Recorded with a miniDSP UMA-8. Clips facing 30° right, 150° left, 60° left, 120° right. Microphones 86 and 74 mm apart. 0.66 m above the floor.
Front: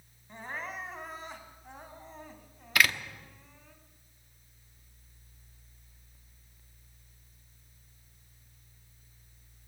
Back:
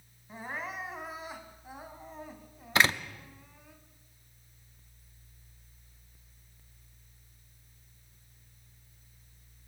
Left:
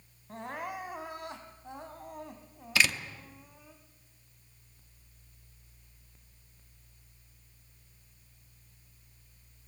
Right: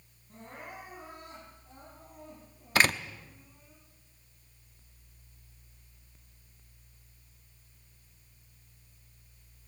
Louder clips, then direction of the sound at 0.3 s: Back 1 dB, left 8 dB; 65° left.